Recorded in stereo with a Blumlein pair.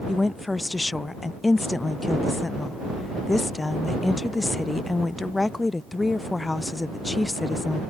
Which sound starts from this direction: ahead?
A woman speaking, at 0.1 s.